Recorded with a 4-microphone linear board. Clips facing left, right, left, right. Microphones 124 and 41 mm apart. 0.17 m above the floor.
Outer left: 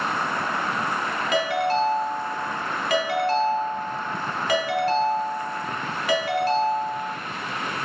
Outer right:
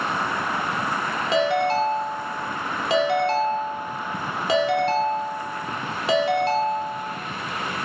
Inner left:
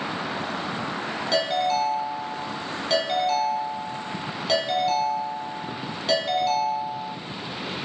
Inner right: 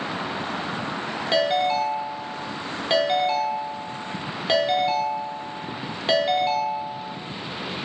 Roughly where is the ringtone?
Right.